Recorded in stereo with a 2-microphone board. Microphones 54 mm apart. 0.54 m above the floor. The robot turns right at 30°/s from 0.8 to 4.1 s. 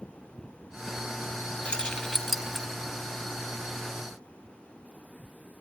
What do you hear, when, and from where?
1.6 s keys jangling: 20° left (ahead or behind), 2.0 m; by 2.7 s 10° right (ahead or behind), 2.0 m